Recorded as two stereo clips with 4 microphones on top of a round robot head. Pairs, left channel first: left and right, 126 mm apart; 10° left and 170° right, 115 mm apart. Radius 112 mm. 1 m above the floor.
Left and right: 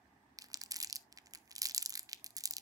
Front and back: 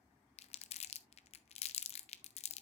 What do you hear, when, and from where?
0.4 s crumpling: 25° right, 0.5 m